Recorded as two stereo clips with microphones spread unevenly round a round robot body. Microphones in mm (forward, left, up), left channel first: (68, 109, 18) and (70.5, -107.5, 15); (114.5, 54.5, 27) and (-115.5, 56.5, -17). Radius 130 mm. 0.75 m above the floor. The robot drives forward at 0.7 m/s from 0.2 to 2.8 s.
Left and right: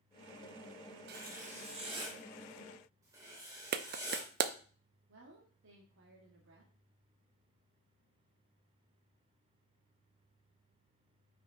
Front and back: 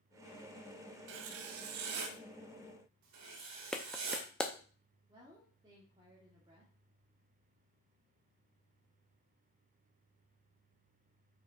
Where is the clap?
95° right, 0.5 m.